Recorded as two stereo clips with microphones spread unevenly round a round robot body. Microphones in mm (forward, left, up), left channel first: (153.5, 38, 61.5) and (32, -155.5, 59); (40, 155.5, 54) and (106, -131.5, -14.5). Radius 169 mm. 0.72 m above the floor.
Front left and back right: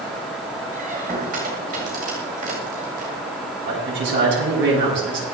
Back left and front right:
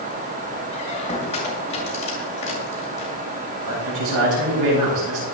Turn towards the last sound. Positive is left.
turn(degrees=-95)